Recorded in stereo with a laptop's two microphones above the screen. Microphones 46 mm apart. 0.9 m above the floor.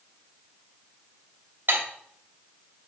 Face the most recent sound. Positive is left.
turn(degrees=-50)  # may be behind; listen again after turning